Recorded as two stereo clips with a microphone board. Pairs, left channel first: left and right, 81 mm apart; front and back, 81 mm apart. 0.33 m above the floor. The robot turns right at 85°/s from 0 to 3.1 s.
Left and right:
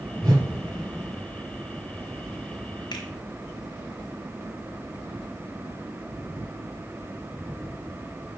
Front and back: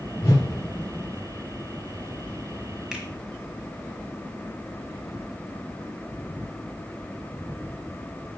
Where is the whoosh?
50° right, 3.5 m; by 0.5 s 30° right, 3.5 m.